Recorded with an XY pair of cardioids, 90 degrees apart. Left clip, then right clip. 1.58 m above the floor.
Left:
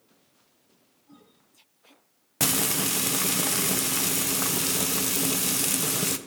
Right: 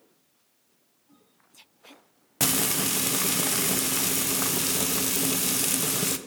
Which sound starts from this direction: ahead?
Frying, at 2.4 s.